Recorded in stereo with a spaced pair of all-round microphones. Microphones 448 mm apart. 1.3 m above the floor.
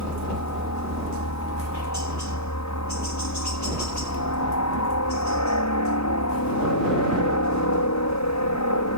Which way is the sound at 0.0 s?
40° left (ahead or behind).